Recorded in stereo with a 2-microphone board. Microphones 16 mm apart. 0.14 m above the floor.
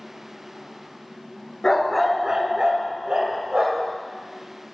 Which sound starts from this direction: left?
A dog barking, at 1.6 s.